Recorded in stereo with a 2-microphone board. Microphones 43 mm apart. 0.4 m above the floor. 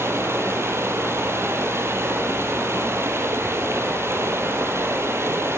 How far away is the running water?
About 3 m.